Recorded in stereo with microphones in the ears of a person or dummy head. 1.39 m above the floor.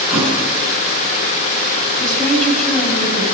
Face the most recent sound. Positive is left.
turn(degrees=0)  # may be behind; listen again after turning